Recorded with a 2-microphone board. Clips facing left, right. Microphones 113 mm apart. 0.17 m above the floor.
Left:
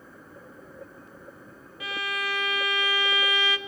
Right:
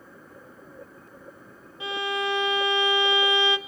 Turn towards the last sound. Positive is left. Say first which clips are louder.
# right 5 dB
turn(degrees=-25)  # may be behind; listen again after turning